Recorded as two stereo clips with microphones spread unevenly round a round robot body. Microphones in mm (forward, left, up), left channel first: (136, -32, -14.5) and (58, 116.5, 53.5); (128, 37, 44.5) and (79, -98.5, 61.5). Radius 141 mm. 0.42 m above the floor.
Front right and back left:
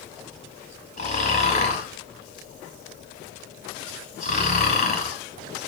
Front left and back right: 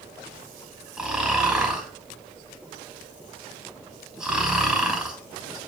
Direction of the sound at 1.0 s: 25° right.